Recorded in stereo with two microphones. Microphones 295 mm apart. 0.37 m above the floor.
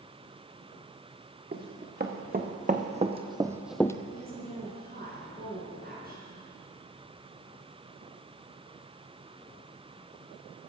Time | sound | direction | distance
1.5 | running footsteps | 35° right (ahead or behind) | 2 m
4.1 | a woman speaking | 35° right (ahead or behind) | 4 m